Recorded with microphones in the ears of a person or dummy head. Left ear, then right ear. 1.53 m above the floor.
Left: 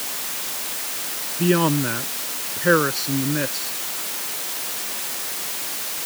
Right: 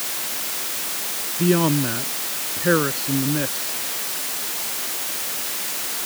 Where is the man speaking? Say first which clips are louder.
Even; 25° left (ahead or behind).